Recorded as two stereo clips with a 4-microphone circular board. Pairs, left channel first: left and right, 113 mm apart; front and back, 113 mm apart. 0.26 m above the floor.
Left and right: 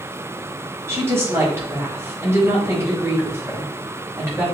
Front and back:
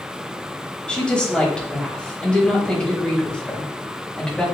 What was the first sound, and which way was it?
A woman speaking, 70° right.